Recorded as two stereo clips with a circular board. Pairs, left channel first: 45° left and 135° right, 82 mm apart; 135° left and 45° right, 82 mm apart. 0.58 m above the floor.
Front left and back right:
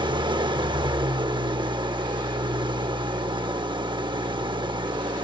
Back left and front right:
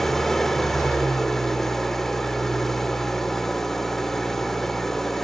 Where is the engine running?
140° right, 0.8 m.